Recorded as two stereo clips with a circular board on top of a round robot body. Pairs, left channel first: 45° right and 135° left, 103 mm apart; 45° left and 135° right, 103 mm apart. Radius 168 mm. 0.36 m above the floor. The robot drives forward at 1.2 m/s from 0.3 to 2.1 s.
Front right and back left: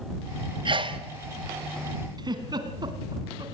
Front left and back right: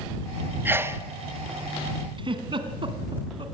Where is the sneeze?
160° left, 2 m; by 1.0 s 165° left, 2.5 m.